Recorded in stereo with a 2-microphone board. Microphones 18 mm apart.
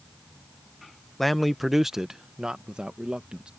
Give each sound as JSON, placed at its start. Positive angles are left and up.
{"t": 1.2, "sound": "a man speaking", "side_deg": 5}